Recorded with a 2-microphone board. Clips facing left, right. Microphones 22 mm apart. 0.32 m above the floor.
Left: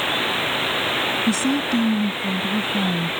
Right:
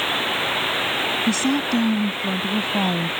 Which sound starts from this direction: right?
A woman speaking, at 1.3 s.